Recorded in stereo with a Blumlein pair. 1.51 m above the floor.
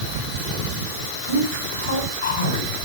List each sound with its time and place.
1.3 s a man speaking: 70° left, 8 m